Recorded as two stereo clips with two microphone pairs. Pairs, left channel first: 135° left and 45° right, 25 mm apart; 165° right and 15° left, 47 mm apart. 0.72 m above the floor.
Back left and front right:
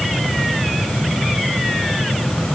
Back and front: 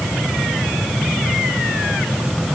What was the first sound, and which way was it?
Only background noise.